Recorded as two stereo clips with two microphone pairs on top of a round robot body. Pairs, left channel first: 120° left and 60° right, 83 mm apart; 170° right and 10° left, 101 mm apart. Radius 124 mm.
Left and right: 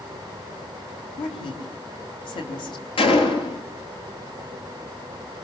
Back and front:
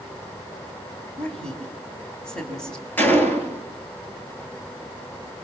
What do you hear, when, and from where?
1.2 s a woman speaking: 105° left, 4.5 m
3.0 s a gunshot: 120° left, 4 m